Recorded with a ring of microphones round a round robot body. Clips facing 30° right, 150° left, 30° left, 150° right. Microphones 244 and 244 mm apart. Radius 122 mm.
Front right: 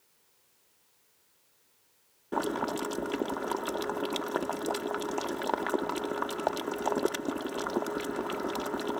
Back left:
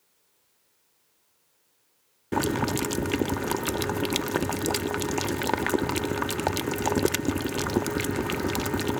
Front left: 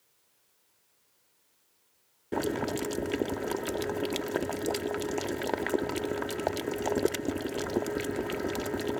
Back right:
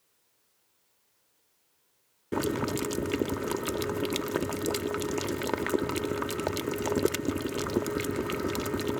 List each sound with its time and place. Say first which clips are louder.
2.3 s boiling: back left 5 dB, back right 1 dB; 140° left